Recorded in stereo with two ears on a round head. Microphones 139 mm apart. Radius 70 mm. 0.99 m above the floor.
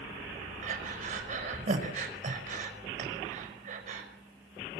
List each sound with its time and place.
0.6 s breathing: 55° right (ahead or behind), 5 m